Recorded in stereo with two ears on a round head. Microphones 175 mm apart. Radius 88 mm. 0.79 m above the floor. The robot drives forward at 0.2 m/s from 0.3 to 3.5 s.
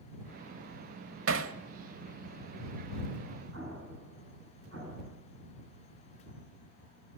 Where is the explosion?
75° right (ahead or behind), 9.5 m.